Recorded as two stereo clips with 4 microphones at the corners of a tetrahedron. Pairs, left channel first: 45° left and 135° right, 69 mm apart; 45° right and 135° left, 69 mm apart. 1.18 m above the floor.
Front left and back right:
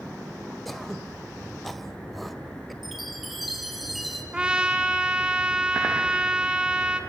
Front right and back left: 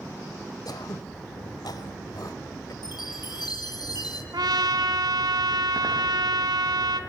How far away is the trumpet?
About 3 m.